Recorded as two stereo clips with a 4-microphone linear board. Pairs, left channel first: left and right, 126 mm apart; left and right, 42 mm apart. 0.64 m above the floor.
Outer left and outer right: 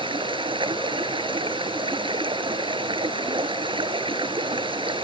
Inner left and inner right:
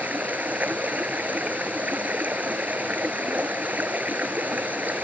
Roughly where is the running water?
Right.